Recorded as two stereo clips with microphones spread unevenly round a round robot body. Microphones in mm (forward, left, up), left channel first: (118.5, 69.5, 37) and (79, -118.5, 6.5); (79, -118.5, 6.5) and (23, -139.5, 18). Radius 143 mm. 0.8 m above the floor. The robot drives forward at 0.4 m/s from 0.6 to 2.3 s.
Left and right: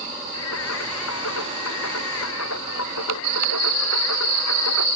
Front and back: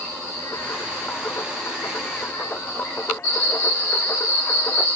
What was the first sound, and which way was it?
Singing, 100° left.